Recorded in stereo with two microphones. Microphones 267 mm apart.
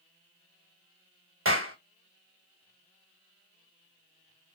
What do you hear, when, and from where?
1.4 s a clap: 50° right (ahead or behind), 1.3 m